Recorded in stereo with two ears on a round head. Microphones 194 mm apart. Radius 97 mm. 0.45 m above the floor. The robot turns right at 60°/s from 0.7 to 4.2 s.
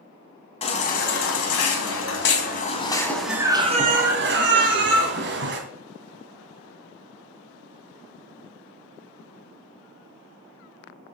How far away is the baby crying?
About 1.8 m.